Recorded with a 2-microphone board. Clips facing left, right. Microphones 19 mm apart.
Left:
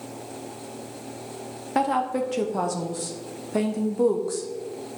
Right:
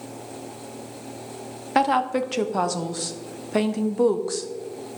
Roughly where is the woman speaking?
Right.